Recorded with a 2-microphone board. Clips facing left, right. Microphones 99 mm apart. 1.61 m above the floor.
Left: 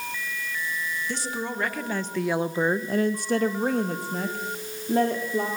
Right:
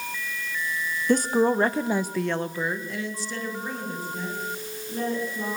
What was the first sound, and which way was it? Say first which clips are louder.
A woman speaking: right 10 dB; 50° right (ahead or behind).